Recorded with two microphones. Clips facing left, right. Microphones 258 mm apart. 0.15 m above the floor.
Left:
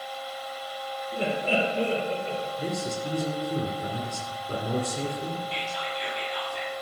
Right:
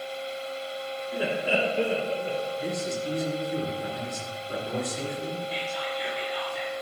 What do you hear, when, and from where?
1.1 s laughter: 5° right (ahead or behind), 2 m; by 2.5 s 20° right (ahead or behind), 3 m
2.6 s a man speaking: 45° left (ahead or behind), 2.5 m
5.5 s whispering: centre (ahead or behind), 4 m